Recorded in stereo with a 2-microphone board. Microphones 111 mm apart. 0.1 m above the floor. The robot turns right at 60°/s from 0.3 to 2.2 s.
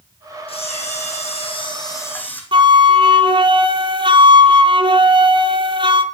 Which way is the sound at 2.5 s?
50° right (ahead or behind).